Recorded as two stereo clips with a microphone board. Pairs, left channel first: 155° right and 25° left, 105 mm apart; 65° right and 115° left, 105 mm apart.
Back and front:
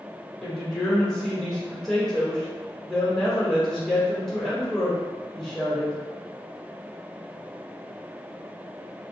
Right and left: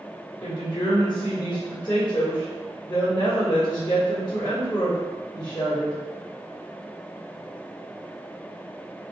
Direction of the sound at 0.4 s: 75° right.